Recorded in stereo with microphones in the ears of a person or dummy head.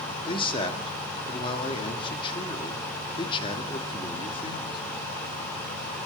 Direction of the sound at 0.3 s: 30° left (ahead or behind).